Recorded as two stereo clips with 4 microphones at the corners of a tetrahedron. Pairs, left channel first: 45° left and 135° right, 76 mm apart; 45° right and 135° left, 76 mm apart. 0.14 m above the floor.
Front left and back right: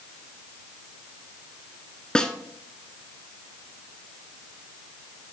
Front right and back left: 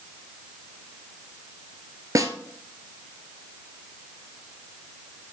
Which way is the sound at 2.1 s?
120° left.